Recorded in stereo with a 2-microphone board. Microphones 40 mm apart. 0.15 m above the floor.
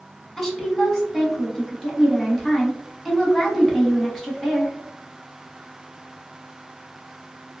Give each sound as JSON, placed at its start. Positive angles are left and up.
{"t": 0.4, "sound": "a woman speaking", "side_deg": 15, "distance_m": 1.0}